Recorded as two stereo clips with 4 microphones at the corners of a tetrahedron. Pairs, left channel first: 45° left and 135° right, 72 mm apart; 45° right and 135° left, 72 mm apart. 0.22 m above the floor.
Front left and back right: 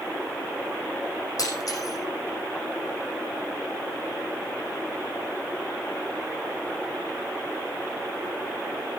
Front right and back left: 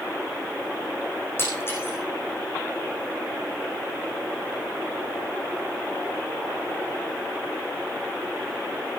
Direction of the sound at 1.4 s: 10° left.